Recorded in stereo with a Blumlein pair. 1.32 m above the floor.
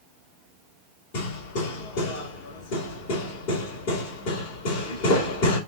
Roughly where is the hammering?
Ahead left.